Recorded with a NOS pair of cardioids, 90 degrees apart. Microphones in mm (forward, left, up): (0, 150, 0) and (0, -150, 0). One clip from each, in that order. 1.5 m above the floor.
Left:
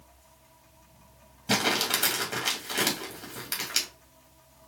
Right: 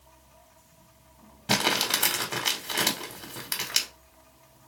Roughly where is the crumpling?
Ahead.